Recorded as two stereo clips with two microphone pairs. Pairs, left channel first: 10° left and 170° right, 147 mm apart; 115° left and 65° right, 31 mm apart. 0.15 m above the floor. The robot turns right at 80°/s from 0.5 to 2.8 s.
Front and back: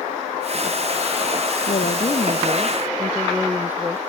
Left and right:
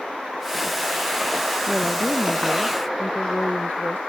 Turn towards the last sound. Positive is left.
turn(degrees=110)